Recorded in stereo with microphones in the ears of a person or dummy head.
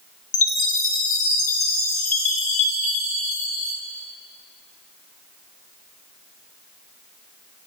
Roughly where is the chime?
Left.